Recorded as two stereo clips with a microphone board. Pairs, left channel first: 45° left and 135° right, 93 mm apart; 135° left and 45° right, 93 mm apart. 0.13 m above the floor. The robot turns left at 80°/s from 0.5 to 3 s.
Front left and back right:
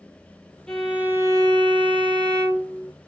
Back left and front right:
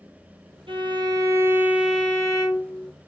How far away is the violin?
About 0.7 m.